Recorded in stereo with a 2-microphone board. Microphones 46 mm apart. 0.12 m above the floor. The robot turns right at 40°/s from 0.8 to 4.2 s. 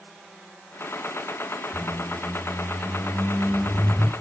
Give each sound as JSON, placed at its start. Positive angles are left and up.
{"t": 1.7, "sound": "a squeak", "side_deg": -20, "distance_m": 0.9}